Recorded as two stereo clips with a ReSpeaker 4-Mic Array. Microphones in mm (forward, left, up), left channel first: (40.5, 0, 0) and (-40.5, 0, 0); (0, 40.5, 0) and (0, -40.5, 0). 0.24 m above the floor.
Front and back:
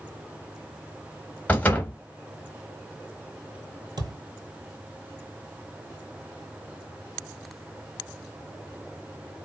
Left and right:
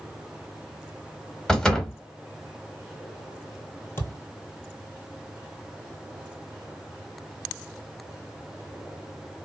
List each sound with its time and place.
1.5 s a door slam: 15° left, 0.8 m
4.0 s a thud: 155° left, 1.2 m